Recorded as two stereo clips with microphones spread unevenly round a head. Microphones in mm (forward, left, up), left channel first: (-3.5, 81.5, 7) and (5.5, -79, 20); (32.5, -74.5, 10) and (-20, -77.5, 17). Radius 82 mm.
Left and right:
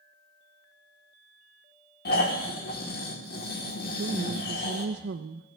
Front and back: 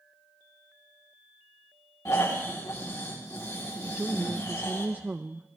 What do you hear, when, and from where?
2.0 s snoring: 60° left, 3.5 m
3.9 s a woman speaking: 115° right, 0.6 m